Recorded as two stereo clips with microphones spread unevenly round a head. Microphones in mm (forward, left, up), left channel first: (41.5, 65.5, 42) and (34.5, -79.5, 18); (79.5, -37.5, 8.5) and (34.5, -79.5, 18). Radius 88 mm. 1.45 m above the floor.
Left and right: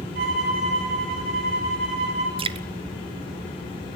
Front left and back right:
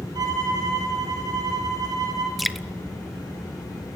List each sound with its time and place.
0.1 s a violin: 135° right, 9.5 m
2.4 s dripping: 45° right, 1.0 m